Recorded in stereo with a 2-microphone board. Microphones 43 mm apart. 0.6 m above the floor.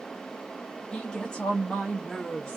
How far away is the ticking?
I don't hear ticking.